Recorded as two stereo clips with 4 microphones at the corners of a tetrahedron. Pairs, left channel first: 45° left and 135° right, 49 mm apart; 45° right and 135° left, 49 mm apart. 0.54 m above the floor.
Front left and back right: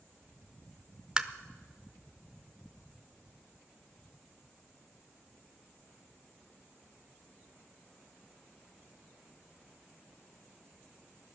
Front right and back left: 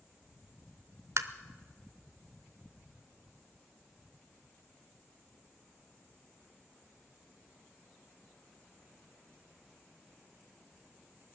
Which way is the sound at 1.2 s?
150° left.